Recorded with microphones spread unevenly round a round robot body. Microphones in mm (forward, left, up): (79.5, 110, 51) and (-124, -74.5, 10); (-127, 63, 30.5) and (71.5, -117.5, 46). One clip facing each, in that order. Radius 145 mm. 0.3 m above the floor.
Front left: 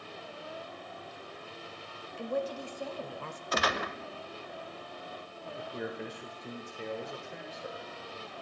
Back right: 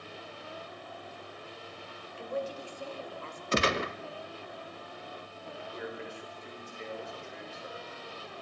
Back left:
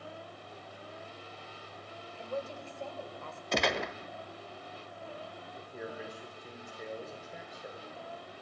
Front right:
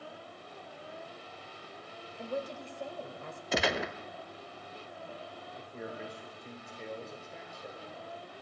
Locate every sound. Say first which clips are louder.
2.2 s a woman speaking: front left 2 dB, front right 1 dB; 30° left, 1.2 m
3.5 s a gunshot: back right 4 dB, even; 130° right, 0.6 m
5.6 s a man speaking: front left 3 dB, even; 60° left, 1.4 m